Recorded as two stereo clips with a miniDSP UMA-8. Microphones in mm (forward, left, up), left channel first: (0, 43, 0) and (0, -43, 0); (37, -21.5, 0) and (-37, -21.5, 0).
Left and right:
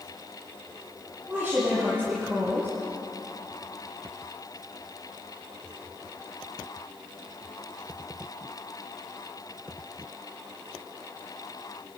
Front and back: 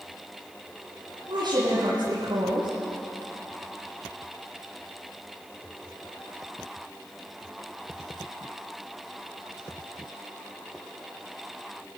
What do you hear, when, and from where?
1.3 s a woman speaking: 170° right, 9 m